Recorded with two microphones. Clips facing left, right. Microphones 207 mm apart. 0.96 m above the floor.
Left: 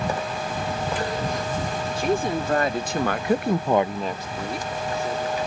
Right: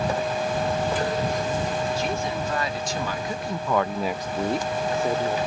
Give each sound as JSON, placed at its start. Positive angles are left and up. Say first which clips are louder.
{"t": 2.0, "sound": "a woman speaking", "louder": "left 4 dB", "side_deg": 50}